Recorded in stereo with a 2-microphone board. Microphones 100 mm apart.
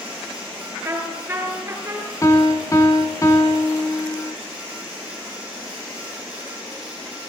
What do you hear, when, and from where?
0.8 s a trumpet: 25° right (ahead or behind), 4 m
2.2 s a piano: 35° left (ahead or behind), 2 m